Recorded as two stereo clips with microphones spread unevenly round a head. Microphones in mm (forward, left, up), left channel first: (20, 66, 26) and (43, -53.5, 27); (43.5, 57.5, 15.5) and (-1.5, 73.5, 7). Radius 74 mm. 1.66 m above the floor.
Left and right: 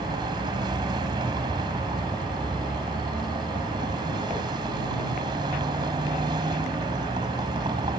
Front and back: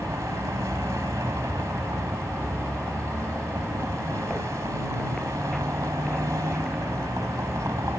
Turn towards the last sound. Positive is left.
turn(degrees=-140)